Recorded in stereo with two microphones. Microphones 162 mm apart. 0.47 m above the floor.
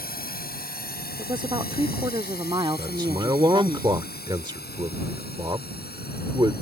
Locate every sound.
0.0 s a drone: 65° left (ahead or behind); by 6.6 s 70° left (ahead or behind)
1.2 s a woman speaking: 30° right (ahead or behind)
2.8 s a man speaking: 25° right (ahead or behind)